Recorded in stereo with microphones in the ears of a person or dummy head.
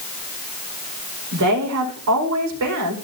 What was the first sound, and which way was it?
A woman speaking, 80° right.